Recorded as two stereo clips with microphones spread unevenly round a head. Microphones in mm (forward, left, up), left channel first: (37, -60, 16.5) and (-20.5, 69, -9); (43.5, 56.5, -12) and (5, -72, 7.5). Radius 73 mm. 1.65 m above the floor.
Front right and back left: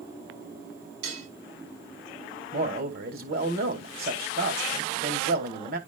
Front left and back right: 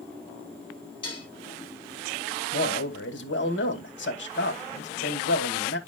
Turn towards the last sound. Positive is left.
turn(degrees=85)